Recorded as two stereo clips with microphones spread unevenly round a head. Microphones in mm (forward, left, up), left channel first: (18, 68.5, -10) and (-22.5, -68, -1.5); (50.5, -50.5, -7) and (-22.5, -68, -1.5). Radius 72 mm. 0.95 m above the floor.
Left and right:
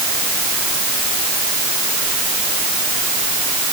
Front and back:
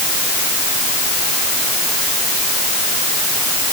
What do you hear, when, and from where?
Only background noise.